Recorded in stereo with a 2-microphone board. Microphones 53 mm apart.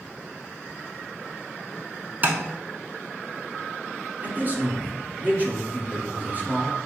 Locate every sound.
2.2 s tapping: 35° right (ahead or behind), 0.8 m
4.2 s a man speaking: 35° right (ahead or behind), 1.3 m